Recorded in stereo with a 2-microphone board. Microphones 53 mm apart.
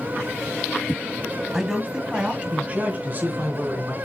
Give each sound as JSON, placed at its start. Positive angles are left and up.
{"t": 1.5, "sound": "a man speaking", "side_deg": -10, "distance_m": 2.0}